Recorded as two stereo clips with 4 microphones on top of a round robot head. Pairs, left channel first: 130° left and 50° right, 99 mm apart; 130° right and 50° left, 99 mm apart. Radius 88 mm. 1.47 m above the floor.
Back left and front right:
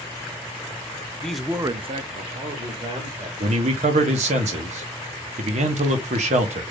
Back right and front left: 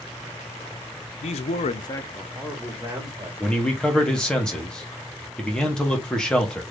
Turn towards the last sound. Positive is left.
turn(degrees=-50)